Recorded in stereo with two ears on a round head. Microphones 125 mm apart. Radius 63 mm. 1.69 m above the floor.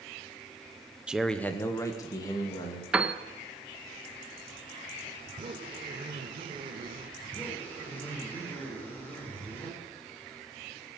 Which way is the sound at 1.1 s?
10° right (ahead or behind).